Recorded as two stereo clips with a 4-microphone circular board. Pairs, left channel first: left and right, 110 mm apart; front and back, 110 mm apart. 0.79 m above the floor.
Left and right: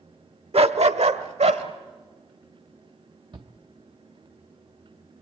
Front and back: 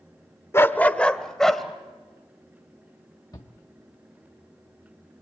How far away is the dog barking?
About 0.8 m.